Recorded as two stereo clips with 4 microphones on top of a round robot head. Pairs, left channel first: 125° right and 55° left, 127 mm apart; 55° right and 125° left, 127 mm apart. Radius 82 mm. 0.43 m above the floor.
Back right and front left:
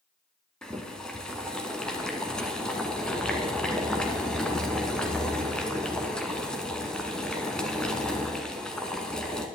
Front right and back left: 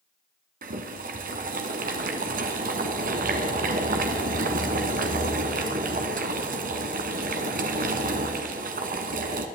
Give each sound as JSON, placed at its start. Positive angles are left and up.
{"t": 0.6, "sound": "boiling", "azimuth_deg": 150, "distance_m": 1.2}